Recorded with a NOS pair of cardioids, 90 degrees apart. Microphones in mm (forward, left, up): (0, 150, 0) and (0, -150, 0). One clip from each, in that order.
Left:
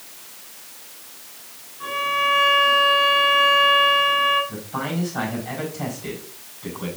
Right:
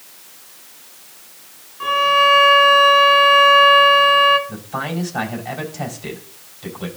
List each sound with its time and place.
1.8 s a violin: 60° right, 2.5 m
4.5 s a man speaking: 55° right, 4.5 m